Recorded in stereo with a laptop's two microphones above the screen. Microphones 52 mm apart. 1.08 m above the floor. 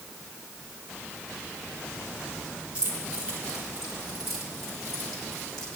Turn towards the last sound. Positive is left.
turn(degrees=10)  # may be behind; listen again after turning